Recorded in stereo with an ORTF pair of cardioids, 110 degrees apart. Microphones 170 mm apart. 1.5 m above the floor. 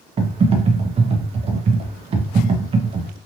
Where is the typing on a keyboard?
35° right, 0.8 m.